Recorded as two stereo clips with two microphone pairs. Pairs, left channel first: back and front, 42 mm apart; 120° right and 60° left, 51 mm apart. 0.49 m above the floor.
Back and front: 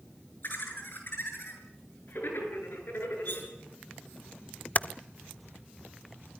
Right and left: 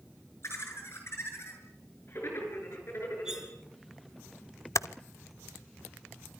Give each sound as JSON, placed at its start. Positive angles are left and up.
{"t": 0.4, "sound": "laughter", "azimuth_deg": -150, "distance_m": 8.0}
{"t": 3.2, "sound": "cutlery clinking", "azimuth_deg": 140, "distance_m": 4.5}
{"t": 4.8, "sound": "typing on a keyboard", "azimuth_deg": -130, "distance_m": 0.5}